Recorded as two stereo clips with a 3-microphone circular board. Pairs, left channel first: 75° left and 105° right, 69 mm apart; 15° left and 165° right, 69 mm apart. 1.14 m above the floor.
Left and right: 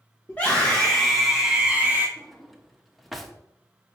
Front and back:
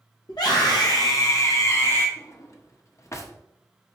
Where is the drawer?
15° right, 0.8 m.